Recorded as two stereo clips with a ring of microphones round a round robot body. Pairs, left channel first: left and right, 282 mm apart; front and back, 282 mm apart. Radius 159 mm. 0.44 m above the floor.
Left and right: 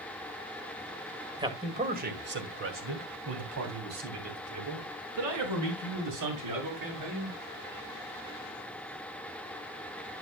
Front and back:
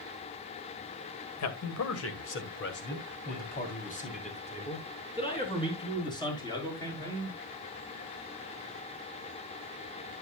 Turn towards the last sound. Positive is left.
turn(degrees=-80)